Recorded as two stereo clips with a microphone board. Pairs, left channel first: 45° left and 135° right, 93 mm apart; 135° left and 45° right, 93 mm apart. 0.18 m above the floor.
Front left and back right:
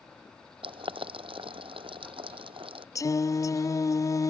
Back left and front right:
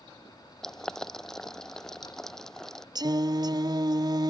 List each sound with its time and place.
0.6 s boiling: 140° right
3.0 s singing: 5° right